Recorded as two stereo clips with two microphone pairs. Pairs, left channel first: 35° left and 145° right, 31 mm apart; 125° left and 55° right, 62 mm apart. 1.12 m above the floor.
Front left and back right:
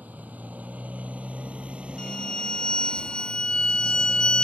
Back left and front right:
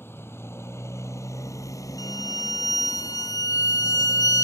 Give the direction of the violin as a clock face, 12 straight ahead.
9 o'clock.